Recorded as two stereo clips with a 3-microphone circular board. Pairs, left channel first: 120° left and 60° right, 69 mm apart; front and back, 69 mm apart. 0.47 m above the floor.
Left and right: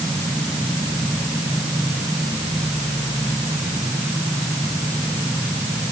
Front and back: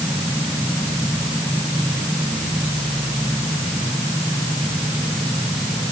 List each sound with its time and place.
Only background noise.